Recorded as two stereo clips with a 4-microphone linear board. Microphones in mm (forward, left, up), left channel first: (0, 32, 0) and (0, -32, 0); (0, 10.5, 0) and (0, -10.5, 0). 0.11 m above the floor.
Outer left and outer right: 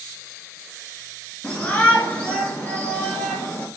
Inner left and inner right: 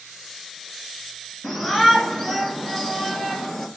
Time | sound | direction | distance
1.4 | a shout | 15° left (ahead or behind) | 1.4 m